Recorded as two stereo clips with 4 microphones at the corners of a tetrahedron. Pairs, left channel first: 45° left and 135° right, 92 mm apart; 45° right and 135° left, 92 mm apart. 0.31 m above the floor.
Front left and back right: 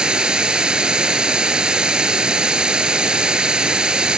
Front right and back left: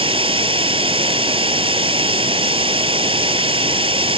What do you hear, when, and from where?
0.0 s running water: 145° left, 0.8 m